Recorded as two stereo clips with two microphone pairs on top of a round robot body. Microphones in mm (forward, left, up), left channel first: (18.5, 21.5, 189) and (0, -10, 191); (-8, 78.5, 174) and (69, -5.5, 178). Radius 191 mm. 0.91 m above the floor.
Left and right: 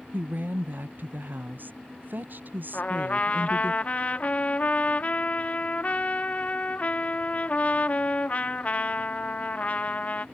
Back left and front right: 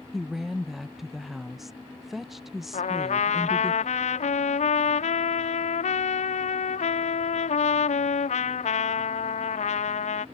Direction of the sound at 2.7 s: 110° left.